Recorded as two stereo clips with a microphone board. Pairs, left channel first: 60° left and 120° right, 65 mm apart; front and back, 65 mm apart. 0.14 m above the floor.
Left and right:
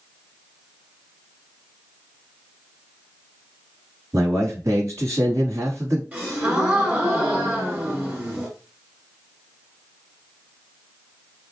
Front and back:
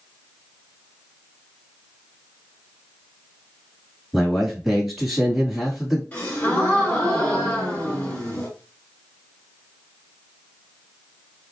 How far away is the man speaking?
About 2.5 m.